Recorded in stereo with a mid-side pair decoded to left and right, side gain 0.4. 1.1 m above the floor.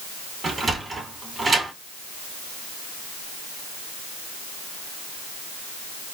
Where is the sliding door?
25° right, 2 m.